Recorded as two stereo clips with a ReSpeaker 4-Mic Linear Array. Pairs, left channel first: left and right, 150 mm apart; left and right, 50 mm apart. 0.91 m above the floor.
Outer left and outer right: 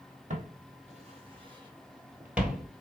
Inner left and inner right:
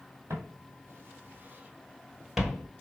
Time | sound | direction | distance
0.3 | footsteps | 55° right (ahead or behind) | 1.5 m